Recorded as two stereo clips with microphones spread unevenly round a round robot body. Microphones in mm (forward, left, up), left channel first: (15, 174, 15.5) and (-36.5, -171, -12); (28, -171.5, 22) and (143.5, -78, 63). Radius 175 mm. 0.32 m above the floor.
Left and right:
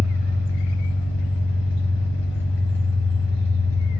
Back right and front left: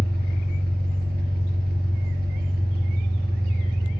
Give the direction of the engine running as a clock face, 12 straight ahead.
11 o'clock.